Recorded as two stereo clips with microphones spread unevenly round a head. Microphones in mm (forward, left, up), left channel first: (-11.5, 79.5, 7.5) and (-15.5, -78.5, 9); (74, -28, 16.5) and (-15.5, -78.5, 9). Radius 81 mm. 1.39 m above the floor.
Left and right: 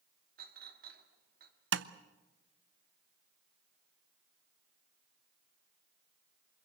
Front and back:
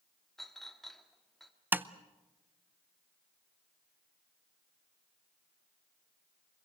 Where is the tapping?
75° right, 0.7 m.